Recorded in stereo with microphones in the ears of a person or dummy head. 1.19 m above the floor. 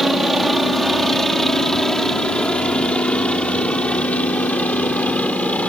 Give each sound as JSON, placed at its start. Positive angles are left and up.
{"t": 0.0, "sound": "a helicopter", "side_deg": 0}